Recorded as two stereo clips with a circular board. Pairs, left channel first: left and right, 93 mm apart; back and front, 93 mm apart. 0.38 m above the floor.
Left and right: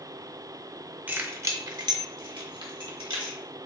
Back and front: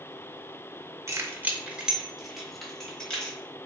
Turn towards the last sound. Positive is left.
turn(degrees=-100)